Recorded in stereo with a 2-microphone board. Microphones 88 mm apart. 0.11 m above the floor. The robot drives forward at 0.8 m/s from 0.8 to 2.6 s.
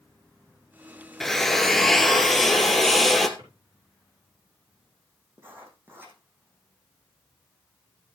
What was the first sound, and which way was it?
A drill, 5° left (ahead or behind).